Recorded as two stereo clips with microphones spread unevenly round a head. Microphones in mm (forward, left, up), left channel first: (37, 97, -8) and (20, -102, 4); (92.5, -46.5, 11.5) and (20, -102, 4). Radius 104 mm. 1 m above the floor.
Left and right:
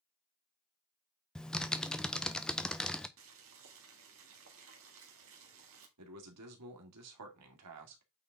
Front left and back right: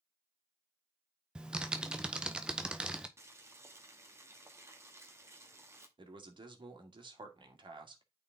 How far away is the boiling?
About 1.9 m.